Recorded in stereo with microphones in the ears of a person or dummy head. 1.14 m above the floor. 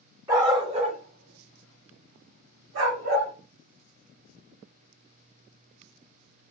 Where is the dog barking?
20° right (ahead or behind), 1.1 m; by 3.3 s 60° right (ahead or behind), 1.9 m.